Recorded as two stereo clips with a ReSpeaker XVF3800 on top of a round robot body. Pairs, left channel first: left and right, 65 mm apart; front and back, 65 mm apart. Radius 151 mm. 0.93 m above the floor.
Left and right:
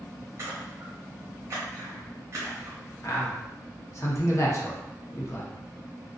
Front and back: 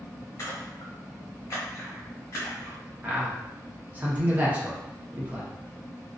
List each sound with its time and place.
0.4 s a splash: 40° right, 0.6 m
3.0 s a man speaking: 120° left, 0.9 m